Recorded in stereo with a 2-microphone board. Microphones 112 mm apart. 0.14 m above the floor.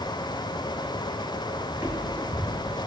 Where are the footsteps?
10° right (ahead or behind), 3 m; by 2.9 s 35° right (ahead or behind), 2.5 m.